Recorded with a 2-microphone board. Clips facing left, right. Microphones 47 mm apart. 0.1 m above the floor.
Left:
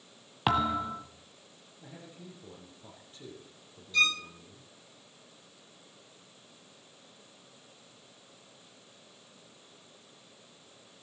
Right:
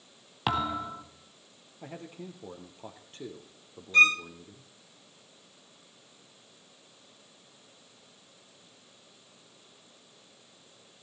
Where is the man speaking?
60° right (ahead or behind), 2.5 m.